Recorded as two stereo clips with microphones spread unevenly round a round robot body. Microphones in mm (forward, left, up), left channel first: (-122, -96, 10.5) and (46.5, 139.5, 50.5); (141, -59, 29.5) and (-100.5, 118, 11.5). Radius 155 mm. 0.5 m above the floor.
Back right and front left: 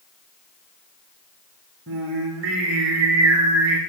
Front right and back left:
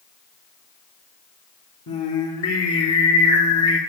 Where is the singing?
5° left, 3 m.